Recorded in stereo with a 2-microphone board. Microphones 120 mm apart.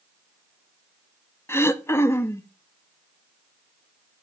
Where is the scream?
I don't hear a scream.